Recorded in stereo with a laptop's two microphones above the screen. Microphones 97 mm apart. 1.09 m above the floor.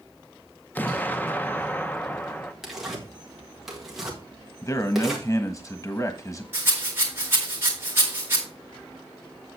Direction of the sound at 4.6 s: 30° left (ahead or behind).